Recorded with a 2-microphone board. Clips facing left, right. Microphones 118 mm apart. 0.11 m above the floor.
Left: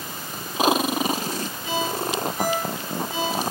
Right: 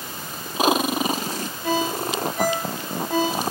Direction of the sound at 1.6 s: 70° right (ahead or behind).